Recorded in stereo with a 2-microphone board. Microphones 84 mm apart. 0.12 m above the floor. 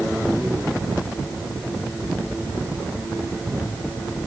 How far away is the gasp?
I don't hear a gasp.